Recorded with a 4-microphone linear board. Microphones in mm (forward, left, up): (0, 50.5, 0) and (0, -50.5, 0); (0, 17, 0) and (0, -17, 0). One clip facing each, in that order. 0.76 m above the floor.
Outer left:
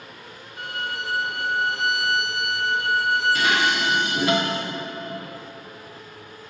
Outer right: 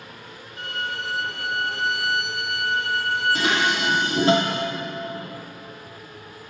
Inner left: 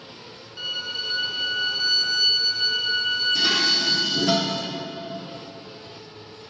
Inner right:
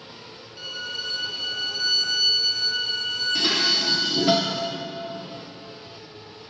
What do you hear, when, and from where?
0.6 s a violin: 15° left (ahead or behind), 0.6 m
3.4 s dishes clattering: 30° right (ahead or behind), 1.1 m